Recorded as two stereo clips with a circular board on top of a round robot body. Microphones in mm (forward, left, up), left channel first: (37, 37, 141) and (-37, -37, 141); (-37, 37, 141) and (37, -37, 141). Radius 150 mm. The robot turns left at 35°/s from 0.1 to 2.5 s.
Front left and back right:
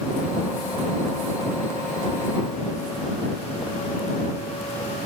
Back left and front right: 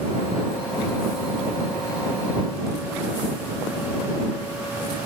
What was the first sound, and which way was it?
Only background noise.